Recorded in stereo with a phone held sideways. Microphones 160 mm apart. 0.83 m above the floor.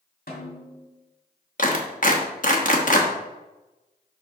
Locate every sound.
0.3 s a snare drum: 65° left (ahead or behind), 2 m
1.6 s a clap: 55° left (ahead or behind), 1.0 m